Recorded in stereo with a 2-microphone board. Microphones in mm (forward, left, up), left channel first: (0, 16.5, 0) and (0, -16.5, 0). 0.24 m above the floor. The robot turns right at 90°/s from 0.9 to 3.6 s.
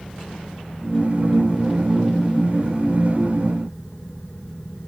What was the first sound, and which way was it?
Only background noise.